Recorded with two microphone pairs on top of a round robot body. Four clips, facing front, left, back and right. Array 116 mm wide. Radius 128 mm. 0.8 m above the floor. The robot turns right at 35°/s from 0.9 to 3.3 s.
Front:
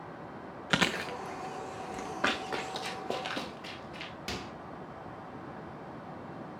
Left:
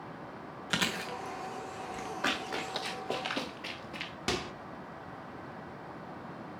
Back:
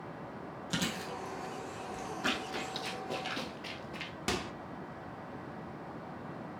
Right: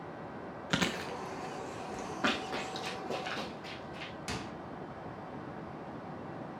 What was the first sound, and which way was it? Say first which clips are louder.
Chewing: right 1 dB, front 7 dB; 5° left.